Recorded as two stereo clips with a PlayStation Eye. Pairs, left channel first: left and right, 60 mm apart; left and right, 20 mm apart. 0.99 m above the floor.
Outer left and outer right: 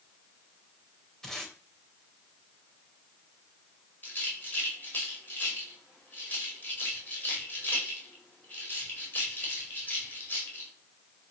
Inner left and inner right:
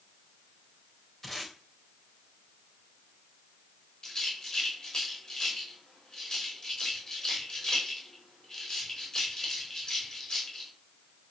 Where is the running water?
I don't hear running water.